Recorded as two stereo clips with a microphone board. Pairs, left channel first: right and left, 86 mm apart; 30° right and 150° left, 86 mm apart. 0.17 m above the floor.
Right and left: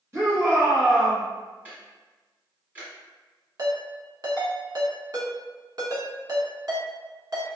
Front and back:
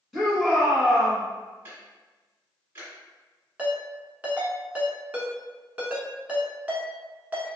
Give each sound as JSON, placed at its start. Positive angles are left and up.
{"t": 0.1, "sound": "a shout", "azimuth_deg": 60, "distance_m": 1.8}
{"t": 1.6, "sound": "ticking", "azimuth_deg": 135, "distance_m": 1.6}
{"t": 3.6, "sound": "a ringtone", "azimuth_deg": 85, "distance_m": 1.0}